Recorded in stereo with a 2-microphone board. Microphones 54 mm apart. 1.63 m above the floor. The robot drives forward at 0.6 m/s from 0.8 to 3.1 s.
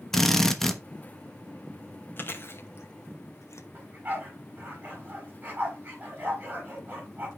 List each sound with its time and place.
0.1 s a drill: 5° left (ahead or behind), 1.0 m
2.2 s chewing: 40° left (ahead or behind), 1.3 m; by 3.6 s 60° left (ahead or behind), 1.0 m
3.7 s a dog barking: 30° right (ahead or behind), 6 m